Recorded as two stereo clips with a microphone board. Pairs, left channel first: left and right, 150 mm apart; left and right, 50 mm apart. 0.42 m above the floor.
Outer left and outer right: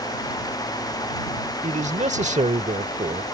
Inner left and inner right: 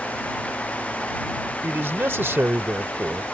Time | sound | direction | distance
1.6 | a man speaking | 50° right (ahead or behind) | ?